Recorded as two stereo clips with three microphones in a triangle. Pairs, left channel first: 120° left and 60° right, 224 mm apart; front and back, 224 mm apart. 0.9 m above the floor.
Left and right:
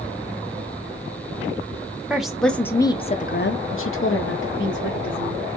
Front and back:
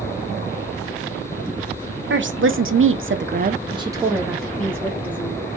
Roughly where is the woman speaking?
Behind right.